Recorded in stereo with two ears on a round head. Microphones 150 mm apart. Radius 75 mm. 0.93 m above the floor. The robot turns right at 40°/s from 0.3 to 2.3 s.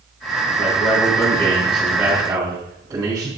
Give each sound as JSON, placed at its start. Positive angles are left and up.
{"t": 0.6, "sound": "a man speaking", "azimuth_deg": 140, "distance_m": 4.5}